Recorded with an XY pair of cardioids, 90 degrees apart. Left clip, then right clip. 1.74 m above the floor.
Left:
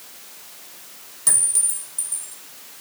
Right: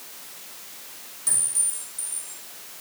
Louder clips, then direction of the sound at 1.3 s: Left 5 dB; 65° left.